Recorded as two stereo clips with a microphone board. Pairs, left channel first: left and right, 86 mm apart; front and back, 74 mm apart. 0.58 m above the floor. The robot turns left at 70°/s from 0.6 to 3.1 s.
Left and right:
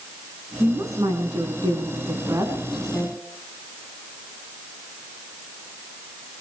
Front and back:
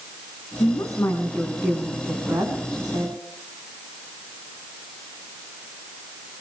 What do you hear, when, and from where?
0.6 s a woman speaking: 25° right, 4.5 m; by 3.2 s 160° left, 4.5 m